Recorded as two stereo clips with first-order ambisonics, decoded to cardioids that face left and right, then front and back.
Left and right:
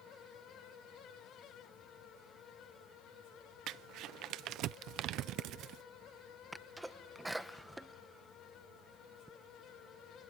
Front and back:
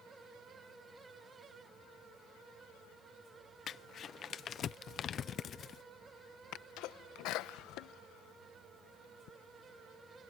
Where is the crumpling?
55° right.